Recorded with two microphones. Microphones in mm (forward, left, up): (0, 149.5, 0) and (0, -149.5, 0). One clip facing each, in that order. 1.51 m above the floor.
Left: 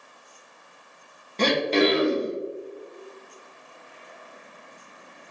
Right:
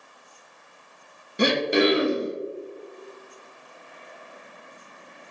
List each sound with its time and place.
1.4 s throat clearing: 10° right (ahead or behind), 0.8 m